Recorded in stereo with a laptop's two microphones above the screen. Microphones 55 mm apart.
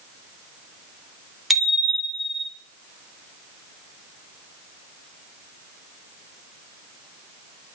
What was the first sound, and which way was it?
A bicycle bell, centre (ahead or behind).